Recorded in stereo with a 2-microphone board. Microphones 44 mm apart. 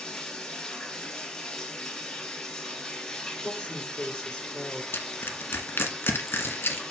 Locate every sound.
0.0 s running water: 15° left (ahead or behind), 3 m
3.4 s a woman speaking: 20° left (ahead or behind), 5 m
4.9 s crushing: 65° left (ahead or behind), 1.5 m